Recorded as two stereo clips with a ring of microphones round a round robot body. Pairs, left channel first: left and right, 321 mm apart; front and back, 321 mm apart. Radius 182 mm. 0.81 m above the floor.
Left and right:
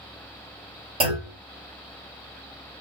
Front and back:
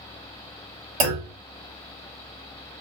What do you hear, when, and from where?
1.0 s a clunk: 165° right, 1.5 m